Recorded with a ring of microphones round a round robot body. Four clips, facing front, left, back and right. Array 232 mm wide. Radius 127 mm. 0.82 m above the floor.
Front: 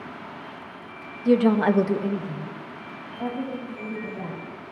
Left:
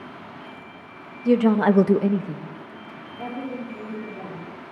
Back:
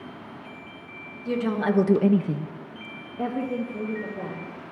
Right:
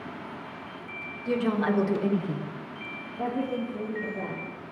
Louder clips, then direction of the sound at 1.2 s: Left 8 dB, front 6 dB; 50° left.